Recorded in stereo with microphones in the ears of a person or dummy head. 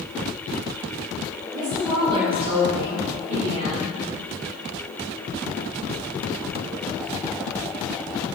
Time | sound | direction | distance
1.5 | a woman speaking | 20° right (ahead or behind) | 3 m